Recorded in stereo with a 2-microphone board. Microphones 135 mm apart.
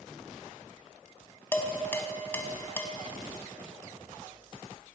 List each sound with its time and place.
1.5 s dishes clattering: 15° left (ahead or behind), 0.9 m